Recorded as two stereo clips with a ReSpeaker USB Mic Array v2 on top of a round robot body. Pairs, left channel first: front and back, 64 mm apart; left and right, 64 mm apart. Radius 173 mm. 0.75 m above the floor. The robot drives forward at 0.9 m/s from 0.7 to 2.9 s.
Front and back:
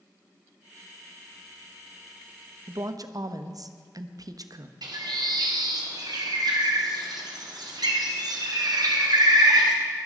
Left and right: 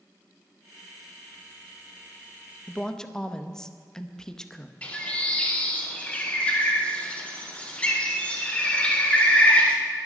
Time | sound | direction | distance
2.7 | a woman speaking | 165° left | 1.0 m
4.8 | a bird | 160° left | 2 m